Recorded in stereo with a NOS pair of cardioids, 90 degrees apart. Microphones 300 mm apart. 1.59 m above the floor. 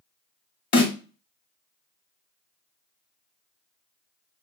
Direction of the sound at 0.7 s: 40° left.